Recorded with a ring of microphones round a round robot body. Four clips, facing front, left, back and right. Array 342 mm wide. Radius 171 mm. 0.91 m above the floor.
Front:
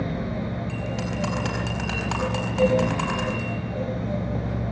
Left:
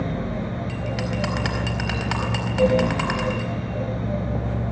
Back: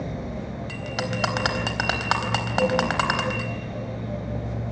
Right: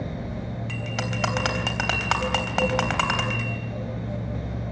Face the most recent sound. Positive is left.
turn(degrees=-145)